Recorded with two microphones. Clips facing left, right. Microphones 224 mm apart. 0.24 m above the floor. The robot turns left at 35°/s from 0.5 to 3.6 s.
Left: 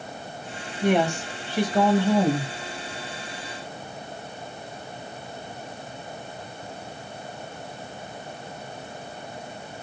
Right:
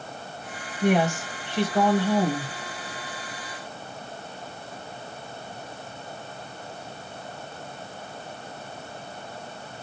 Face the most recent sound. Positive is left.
turn(degrees=95)